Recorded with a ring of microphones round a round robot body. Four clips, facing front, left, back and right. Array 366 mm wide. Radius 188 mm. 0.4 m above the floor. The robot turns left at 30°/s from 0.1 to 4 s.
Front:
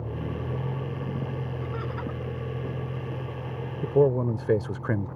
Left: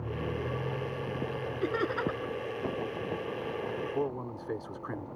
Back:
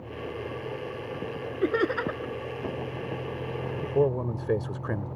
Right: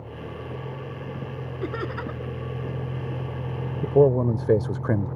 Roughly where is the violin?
No violin in this recording.